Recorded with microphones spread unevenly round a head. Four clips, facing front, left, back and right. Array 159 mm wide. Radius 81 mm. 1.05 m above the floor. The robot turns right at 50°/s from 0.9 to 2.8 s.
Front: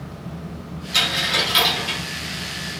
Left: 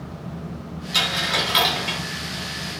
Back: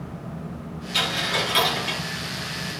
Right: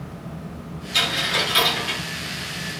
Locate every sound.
0.9 s a dropped coin: 50° left, 1.5 m; by 2.0 s 100° left, 1.5 m